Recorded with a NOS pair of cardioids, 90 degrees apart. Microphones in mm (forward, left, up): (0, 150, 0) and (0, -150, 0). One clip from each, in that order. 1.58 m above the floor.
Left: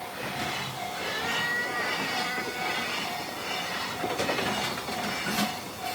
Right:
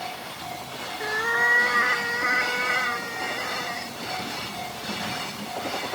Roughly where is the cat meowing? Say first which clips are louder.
Right 7 dB; ahead right.